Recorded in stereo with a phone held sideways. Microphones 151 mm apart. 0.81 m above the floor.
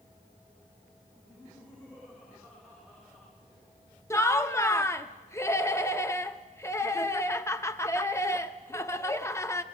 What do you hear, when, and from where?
1.2 s laughter: 10° left (ahead or behind), 8 m
4.1 s laughter: 20° left (ahead or behind), 0.7 m